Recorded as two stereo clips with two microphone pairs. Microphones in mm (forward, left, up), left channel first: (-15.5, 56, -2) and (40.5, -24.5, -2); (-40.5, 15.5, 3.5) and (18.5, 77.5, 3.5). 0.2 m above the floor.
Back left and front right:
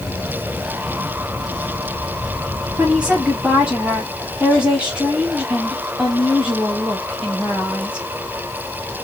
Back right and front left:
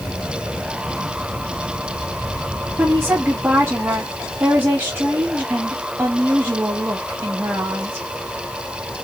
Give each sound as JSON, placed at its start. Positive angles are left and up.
{"t": 2.8, "sound": "a woman speaking", "azimuth_deg": 10, "distance_m": 1.3}